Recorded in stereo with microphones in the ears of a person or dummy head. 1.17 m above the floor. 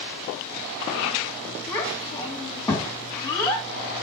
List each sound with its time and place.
1.7 s a child speaking: 5° left (ahead or behind), 2.5 m